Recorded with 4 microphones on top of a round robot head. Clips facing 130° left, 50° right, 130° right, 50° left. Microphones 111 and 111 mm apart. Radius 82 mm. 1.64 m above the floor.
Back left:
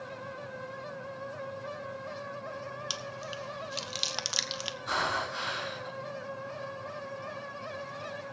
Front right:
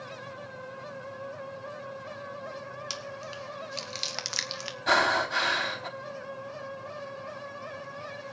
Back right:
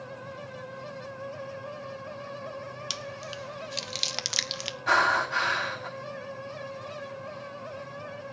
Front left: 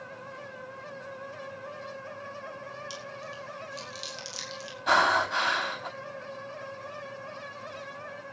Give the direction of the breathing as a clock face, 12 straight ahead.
1 o'clock.